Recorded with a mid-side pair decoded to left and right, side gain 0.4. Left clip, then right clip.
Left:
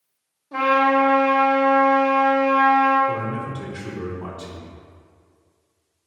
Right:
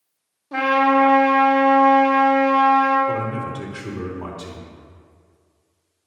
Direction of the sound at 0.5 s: 55° right.